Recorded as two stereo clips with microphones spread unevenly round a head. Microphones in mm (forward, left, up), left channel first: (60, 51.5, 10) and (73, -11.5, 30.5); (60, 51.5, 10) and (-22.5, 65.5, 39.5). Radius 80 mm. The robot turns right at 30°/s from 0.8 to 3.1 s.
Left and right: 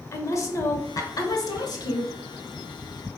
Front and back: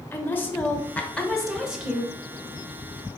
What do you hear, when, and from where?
0.1 s a woman speaking: 60° left, 1.0 m; by 2.1 s 100° left, 1.0 m